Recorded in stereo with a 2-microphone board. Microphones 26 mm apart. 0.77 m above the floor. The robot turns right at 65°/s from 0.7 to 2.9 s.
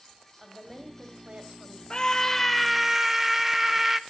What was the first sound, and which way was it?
A woman speaking, 175° right.